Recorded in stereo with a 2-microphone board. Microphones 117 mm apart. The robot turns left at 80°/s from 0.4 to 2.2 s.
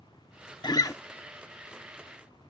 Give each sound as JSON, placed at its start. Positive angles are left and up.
{"t": 0.6, "sound": "a guitar", "side_deg": 40}